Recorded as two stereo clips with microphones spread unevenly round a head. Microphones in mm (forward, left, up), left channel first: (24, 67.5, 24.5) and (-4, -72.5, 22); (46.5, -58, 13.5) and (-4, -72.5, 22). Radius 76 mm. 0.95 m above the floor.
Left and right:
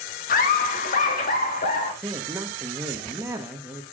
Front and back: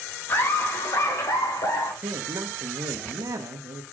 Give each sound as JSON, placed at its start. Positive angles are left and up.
{"t": 0.3, "sound": "laughter", "azimuth_deg": 60, "distance_m": 1.5}
{"t": 2.0, "sound": "a man speaking", "azimuth_deg": -175, "distance_m": 1.0}